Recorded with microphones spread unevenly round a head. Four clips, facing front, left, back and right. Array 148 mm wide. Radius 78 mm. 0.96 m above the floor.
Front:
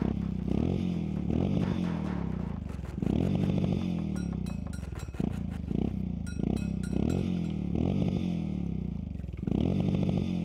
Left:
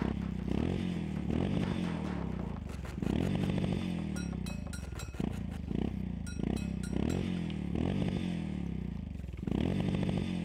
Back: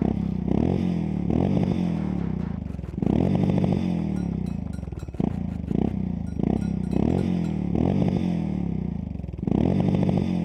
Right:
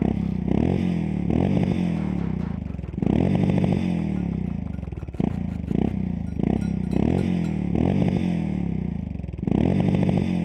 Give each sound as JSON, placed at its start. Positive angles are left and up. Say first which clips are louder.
{"t": 0.0, "sound": "a motorcycle", "louder": "right 12 dB, back 7 dB", "azimuth_deg": -160}